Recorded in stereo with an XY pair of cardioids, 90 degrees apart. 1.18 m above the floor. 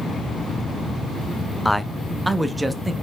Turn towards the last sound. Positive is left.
turn(degrees=-20)